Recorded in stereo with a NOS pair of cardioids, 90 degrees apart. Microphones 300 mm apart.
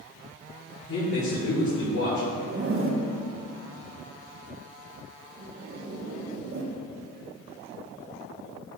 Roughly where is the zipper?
Ahead right.